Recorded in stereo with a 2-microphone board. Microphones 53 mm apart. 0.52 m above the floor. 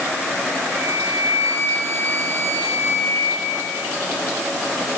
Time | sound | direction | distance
0.7 | a flute | 55° right (ahead or behind) | 6 m